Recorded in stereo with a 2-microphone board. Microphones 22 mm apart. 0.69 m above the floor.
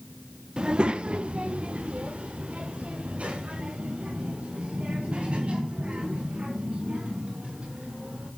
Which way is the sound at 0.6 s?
45° right (ahead or behind).